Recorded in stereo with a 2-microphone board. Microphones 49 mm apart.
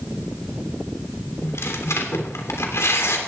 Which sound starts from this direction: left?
Tearing paper, at 1.4 s.